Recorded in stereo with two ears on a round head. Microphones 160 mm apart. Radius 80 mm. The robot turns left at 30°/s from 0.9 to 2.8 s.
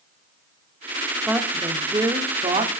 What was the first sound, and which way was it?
A woman speaking, 5° right.